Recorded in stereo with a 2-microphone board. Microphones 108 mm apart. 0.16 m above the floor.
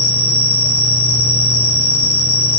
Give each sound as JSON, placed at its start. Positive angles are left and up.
{"t": 0.0, "sound": "an insect", "side_deg": 85, "distance_m": 2.0}